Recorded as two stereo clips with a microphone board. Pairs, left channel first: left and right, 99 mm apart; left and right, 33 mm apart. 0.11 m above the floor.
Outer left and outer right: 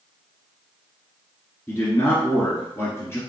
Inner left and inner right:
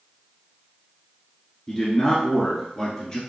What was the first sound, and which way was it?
A man speaking, 25° left (ahead or behind).